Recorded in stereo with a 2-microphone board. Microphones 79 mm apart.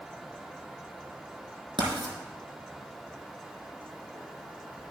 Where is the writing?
80° right, 4 m.